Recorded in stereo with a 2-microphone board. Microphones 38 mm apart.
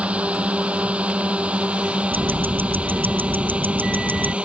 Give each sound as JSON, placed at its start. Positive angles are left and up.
{"t": 0.0, "sound": "a drone", "side_deg": -35}
{"t": 2.1, "sound": "ticking", "side_deg": -60}